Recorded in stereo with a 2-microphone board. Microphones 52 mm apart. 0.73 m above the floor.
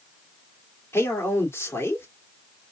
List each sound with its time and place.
0.9 s a man speaking: 60° left (ahead or behind), 2 m